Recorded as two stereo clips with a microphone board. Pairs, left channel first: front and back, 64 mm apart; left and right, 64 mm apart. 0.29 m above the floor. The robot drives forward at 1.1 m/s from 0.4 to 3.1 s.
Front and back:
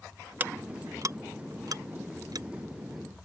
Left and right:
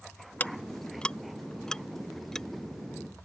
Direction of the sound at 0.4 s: 135° left.